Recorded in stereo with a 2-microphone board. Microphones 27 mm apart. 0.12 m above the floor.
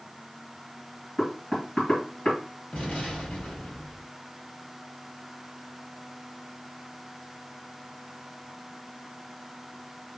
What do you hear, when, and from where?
1.2 s knocking: 30° left (ahead or behind), 2.5 m
2.7 s an explosion: 50° left (ahead or behind), 2 m